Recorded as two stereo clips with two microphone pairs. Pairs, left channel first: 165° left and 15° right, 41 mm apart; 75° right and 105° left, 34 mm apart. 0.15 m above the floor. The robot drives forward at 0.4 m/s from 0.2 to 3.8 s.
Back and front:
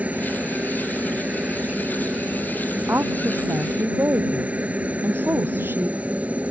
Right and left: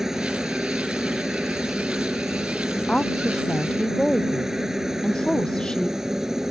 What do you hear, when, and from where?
0.0 s a helicopter: 25° left; by 6.5 s 30° left
2.7 s a woman speaking: 10° right